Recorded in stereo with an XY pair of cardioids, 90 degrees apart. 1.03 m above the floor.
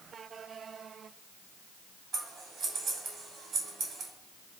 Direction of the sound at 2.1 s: 65° right.